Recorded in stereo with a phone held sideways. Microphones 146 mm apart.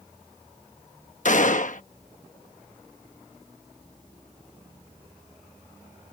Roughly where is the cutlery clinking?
I don't hear cutlery clinking.